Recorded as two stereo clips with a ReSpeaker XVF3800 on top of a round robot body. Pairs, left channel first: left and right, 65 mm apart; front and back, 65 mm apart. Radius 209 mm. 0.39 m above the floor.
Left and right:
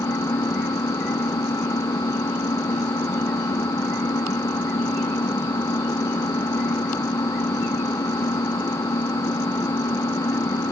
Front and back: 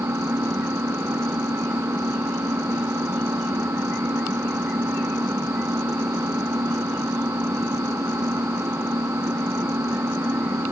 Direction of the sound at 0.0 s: 125° left.